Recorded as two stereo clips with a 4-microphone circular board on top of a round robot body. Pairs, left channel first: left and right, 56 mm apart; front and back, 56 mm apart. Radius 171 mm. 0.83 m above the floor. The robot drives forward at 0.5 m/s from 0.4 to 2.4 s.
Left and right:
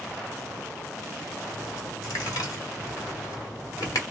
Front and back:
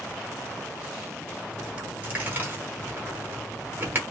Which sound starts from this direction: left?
A dropped coin, at 1.5 s.